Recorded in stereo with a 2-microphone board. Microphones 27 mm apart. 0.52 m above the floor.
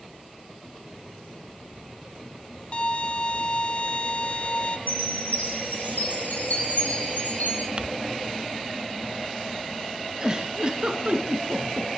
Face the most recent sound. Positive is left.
turn(degrees=-30)  # may be behind; listen again after turning